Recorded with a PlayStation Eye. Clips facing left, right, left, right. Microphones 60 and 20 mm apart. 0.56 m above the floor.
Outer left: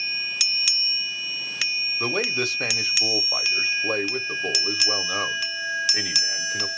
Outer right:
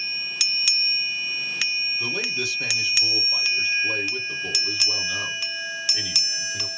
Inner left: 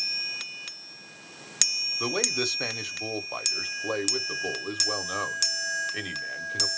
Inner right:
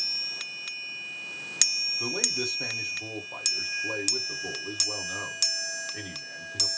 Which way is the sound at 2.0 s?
50° left (ahead or behind).